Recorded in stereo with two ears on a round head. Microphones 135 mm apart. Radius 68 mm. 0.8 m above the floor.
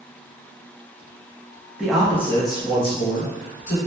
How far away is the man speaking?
About 0.6 m.